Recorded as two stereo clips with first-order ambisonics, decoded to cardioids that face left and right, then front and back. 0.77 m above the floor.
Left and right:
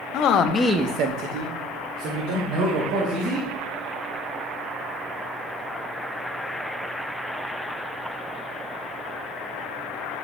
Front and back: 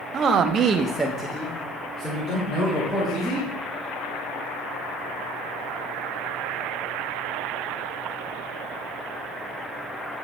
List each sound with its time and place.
0.1 s a man speaking: 120° left, 0.9 m; by 3.5 s 75° right, 3.5 m